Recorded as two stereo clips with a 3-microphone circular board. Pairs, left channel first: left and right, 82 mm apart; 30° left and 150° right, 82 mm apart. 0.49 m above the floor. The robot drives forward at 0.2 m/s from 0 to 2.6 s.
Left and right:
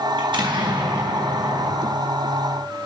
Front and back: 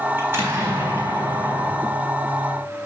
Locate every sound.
0.2 s an explosion: 90° right, 4 m; by 1.9 s 95° right, 4 m